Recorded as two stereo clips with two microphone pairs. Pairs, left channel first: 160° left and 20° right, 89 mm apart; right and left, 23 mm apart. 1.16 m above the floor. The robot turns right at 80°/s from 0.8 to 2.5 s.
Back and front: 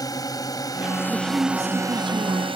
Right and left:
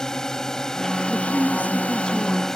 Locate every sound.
0.0 s a drone: 155° right; by 2.6 s 20° right
1.1 s a woman speaking: 115° right; by 2.5 s straight ahead